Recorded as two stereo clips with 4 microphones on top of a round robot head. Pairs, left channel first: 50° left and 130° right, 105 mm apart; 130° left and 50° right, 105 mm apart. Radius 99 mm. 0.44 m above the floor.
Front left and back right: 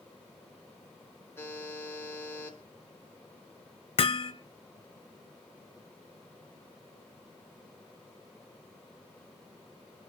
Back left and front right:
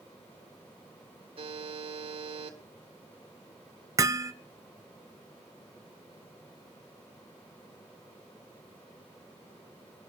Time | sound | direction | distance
1.4 | a buzzer | 20° right | 6 m
4.0 | hammering | 10° left | 1.1 m